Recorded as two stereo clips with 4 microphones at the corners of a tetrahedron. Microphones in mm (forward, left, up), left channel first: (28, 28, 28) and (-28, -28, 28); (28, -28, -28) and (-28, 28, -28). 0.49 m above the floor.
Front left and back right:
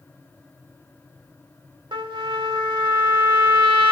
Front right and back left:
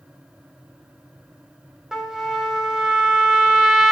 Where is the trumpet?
140° right, 1.0 m.